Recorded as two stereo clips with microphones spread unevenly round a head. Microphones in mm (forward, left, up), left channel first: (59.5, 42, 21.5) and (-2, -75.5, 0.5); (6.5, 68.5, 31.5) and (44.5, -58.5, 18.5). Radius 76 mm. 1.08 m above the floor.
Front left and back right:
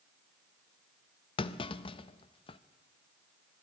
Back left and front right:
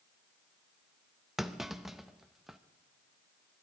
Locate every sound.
1.4 s a clunk: 15° left, 0.6 m